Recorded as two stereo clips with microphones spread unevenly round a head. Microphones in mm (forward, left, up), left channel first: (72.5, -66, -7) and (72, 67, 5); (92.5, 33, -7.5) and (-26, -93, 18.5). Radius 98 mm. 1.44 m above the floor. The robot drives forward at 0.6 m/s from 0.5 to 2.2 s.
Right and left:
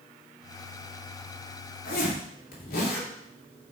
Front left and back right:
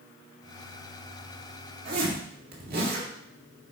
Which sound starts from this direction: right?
A zipper, at 1.9 s.